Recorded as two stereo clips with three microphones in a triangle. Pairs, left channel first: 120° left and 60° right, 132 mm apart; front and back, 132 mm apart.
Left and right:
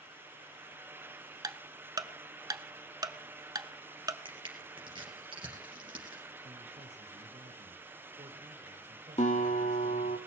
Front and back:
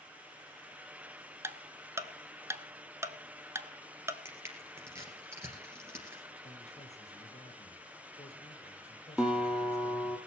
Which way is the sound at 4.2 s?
110° right.